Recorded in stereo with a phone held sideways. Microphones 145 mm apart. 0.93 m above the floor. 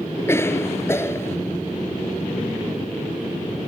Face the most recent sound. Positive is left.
turn(degrees=20)  # may be behind; listen again after turning